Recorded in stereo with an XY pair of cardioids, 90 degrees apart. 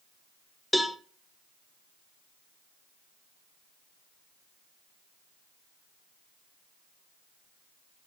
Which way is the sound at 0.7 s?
Straight ahead.